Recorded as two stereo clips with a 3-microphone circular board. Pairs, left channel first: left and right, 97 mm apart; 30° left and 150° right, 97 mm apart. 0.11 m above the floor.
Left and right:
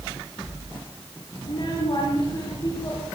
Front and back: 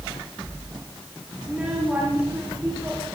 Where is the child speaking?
130° left, 7.5 m; by 3.0 s 145° left, 9 m.